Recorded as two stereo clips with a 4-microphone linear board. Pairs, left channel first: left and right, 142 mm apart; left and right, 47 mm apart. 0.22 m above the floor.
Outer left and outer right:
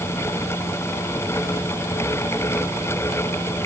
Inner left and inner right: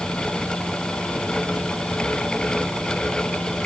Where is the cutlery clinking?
No cutlery clinking in this recording.